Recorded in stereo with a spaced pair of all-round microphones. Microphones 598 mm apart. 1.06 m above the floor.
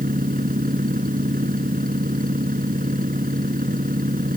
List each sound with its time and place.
0.0 s a machine running: 15° right (ahead or behind)